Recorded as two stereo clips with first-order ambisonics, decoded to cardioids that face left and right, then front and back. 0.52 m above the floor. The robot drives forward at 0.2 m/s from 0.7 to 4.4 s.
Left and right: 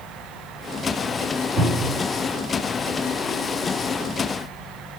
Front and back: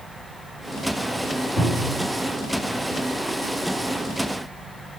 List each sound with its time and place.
1.6 s a cupboard door: 90° right, 1.3 m; by 2.0 s 100° right, 1.3 m